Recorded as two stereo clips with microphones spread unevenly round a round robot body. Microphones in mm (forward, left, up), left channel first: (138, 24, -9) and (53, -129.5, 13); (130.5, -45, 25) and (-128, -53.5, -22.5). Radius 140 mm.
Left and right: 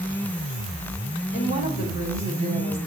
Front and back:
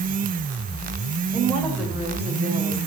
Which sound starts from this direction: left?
A woman speaking, at 1.3 s.